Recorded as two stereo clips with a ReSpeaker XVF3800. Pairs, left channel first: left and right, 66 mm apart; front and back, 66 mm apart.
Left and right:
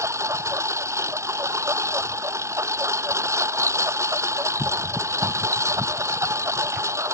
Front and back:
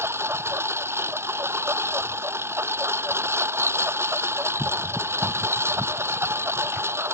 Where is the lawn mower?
135° right.